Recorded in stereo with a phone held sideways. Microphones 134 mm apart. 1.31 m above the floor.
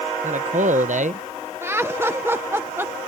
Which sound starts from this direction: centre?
Laughter, at 1.6 s.